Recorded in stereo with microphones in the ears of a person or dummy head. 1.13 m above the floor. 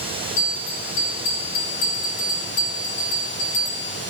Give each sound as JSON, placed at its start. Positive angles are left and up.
{"t": 0.4, "sound": "a bell", "side_deg": 55, "distance_m": 4.0}